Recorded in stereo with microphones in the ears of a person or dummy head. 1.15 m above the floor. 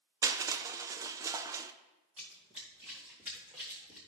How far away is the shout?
I don't hear a shout.